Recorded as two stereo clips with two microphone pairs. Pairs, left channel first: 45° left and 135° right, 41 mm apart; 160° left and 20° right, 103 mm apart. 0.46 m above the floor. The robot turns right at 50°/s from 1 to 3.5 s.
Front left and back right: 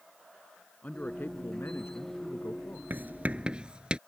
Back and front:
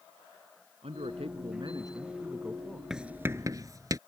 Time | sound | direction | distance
0.8 | a man speaking | 10° right | ?
2.9 | writing | 100° right | ?